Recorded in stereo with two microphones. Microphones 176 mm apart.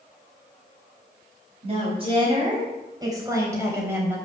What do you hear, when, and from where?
1.6 s a woman speaking: 35° right (ahead or behind), 3.5 m; by 4.2 s 10° right (ahead or behind), 3 m